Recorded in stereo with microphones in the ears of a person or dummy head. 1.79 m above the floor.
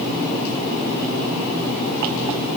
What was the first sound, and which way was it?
Only background noise.